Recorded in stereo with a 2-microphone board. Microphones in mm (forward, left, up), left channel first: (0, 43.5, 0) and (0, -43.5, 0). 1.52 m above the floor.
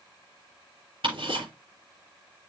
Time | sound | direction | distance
1.0 | ticking | 70° right (ahead or behind) | 6 m